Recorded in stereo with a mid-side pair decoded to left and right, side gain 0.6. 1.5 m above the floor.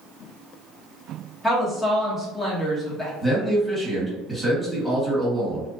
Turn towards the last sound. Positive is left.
turn(degrees=-5)